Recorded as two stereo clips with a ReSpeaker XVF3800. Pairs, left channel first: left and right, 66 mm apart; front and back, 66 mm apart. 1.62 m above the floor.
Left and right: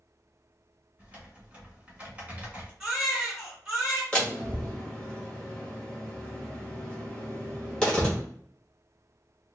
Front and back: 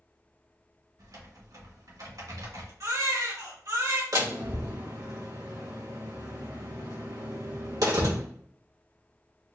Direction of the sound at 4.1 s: 165° left.